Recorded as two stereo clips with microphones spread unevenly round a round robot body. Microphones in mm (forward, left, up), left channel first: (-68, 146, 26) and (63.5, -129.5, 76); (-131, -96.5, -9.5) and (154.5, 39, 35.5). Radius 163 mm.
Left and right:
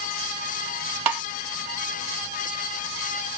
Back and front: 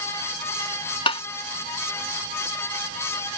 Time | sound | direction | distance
1.1 | tapping | 80° right | ?